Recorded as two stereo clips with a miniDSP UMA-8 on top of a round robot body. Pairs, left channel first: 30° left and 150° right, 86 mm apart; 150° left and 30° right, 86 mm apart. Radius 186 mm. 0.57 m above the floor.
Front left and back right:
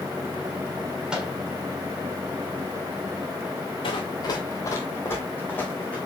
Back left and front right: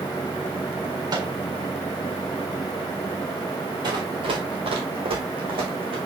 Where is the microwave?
70° right, 3.5 m.